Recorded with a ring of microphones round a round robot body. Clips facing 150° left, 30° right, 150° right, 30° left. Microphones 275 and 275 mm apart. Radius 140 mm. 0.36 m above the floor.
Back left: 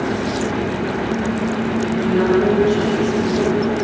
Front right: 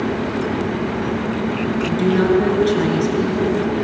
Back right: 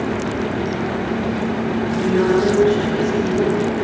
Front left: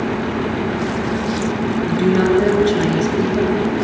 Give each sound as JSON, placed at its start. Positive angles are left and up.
{"t": 1.9, "sound": "a woman speaking", "azimuth_deg": 0, "distance_m": 6.0}